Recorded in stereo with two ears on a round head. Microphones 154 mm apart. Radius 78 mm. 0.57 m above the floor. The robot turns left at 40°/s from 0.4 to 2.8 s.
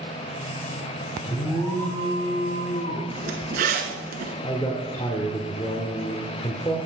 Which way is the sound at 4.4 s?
20° left (ahead or behind).